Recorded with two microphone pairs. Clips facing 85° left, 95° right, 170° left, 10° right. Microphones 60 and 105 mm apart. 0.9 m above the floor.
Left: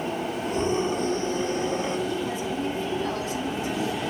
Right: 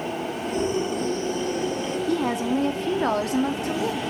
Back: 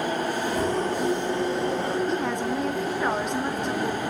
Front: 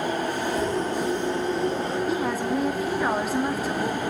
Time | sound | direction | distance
0.5 | a scream | 140° left | 7.5 m
2.1 | a woman speaking | 95° right | 1.8 m